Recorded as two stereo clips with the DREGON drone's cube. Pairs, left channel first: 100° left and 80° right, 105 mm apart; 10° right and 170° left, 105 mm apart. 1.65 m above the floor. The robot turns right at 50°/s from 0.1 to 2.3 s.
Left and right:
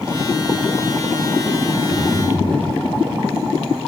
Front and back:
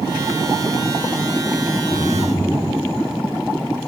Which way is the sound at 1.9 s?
60° right.